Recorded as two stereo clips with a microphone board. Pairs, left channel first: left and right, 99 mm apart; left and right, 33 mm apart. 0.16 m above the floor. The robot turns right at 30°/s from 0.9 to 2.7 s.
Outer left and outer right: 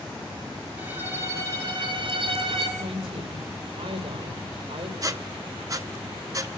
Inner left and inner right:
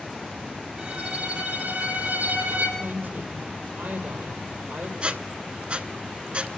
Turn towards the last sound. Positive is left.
turn(degrees=-35)  # may be behind; listen again after turning